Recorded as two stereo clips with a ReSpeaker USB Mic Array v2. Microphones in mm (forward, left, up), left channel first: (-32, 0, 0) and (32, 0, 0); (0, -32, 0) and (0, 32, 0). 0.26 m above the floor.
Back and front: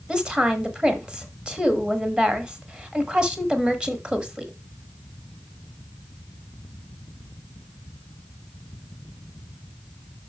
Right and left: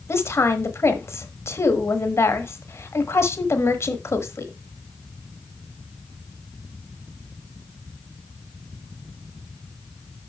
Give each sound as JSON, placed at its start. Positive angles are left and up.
{"t": 0.1, "sound": "a woman speaking", "azimuth_deg": -70, "distance_m": 1.3}